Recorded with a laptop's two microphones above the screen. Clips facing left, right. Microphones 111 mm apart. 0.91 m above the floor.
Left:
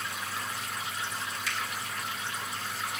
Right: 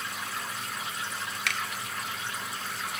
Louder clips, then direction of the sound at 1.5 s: Right 3 dB; 60° right (ahead or behind).